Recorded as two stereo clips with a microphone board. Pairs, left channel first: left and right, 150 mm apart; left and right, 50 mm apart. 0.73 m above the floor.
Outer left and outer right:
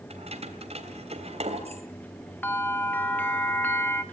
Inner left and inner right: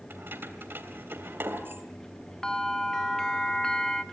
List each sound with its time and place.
0.1 s keys jangling: 45° right (ahead or behind), 3 m
2.4 s a bell: 10° left (ahead or behind), 1.2 m